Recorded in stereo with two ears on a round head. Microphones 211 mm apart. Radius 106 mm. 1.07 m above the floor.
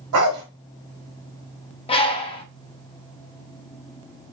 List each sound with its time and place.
0.1 s a dog barking: 65° right (ahead or behind), 1.6 m
1.9 s a bird: 20° left (ahead or behind), 0.6 m